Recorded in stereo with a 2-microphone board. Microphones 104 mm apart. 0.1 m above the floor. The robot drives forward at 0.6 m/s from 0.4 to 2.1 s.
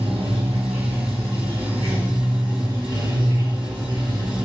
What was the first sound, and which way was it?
Running water, 70° right (ahead or behind).